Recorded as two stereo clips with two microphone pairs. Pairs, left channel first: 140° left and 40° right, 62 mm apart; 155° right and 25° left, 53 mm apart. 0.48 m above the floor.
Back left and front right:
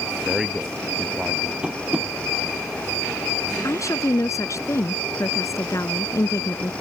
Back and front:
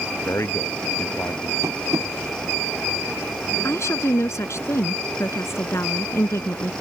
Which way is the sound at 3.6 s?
175° left.